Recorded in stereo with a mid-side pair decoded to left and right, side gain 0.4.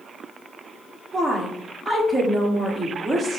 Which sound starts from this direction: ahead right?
A woman speaking, at 1.1 s.